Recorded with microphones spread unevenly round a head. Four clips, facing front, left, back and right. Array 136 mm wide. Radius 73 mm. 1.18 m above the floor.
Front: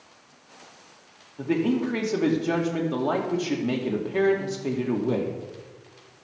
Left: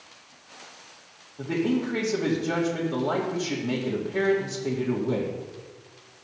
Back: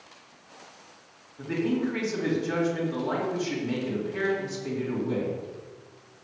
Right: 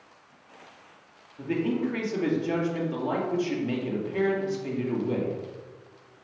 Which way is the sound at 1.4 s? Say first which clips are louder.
Left 2 dB, front 3 dB; 10° left.